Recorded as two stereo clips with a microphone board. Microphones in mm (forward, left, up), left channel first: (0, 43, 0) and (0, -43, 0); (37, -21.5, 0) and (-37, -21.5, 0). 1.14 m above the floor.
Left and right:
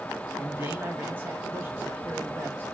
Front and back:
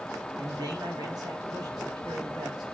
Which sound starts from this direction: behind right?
A man speaking, at 0.4 s.